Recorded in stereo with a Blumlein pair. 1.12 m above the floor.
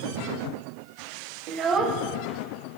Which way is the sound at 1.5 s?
40° right.